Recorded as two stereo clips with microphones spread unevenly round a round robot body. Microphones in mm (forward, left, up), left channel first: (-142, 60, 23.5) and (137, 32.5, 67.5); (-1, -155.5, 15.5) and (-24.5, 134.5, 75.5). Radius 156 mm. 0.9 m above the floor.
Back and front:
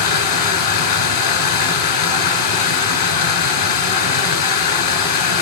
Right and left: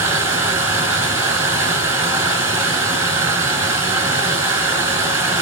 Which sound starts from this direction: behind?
Running water, at 0.0 s.